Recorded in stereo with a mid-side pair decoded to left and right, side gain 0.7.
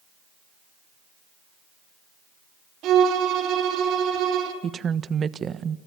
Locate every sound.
2.8 s a violin: 55° right, 4 m
4.6 s a woman speaking: 35° right, 1.3 m